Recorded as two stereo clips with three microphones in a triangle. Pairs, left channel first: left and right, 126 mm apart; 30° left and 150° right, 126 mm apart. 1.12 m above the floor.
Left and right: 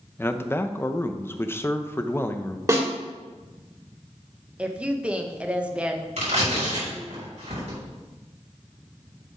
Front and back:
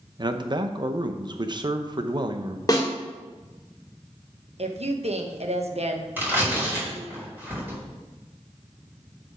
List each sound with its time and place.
0.2 s a man speaking: 160° left, 0.7 m
2.7 s a snare drum: 30° right, 2 m
4.6 s a woman speaking: 170° right, 1.0 m
6.2 s tearing paper: 80° right, 4 m